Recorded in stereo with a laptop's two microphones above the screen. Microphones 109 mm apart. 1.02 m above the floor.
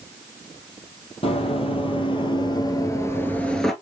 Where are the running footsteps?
60° left (ahead or behind), 1.8 m; by 3.7 s centre (ahead or behind), 1.0 m.